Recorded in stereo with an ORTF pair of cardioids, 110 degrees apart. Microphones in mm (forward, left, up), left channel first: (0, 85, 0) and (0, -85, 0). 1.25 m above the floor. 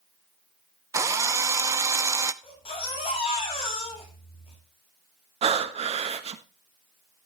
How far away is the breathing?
About 1.3 m.